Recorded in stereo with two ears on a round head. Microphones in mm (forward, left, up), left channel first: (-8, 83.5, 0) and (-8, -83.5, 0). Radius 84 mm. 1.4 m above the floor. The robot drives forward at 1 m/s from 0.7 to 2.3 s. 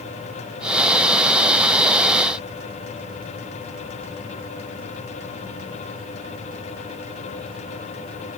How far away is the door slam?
No door slam in this recording.